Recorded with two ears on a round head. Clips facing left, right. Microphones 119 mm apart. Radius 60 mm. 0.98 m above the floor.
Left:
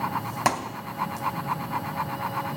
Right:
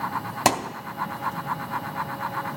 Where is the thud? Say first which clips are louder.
Right 4 dB; 30° right (ahead or behind), 0.6 m.